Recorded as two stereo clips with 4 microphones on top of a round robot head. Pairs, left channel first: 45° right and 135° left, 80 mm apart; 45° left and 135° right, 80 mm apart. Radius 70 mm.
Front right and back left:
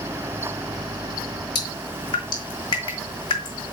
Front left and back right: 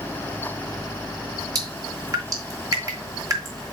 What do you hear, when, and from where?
1.6 s dripping: 85° right, 3 m